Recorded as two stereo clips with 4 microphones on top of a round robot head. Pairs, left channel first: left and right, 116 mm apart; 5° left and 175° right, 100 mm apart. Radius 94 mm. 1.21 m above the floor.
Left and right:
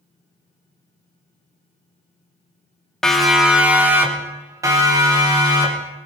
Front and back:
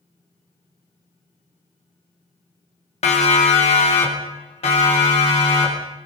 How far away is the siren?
About 2.5 m.